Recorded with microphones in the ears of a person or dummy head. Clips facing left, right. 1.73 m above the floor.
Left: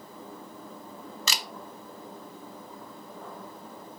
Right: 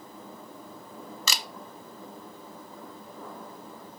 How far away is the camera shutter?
About 0.6 m.